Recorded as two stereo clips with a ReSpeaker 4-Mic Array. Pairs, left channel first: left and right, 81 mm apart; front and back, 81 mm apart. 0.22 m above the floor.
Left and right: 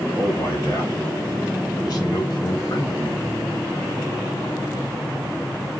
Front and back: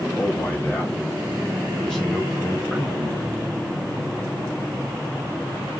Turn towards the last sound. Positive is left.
turn(degrees=115)